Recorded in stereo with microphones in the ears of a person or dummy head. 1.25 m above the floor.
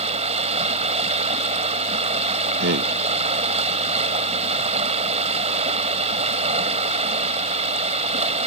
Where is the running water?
35° right (ahead or behind).